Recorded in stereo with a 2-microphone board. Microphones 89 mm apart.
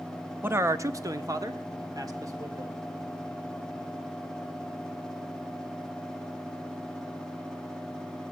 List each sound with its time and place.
0.4 s a man speaking: 25° right (ahead or behind), 0.6 m; by 2.8 s 45° right (ahead or behind), 1.9 m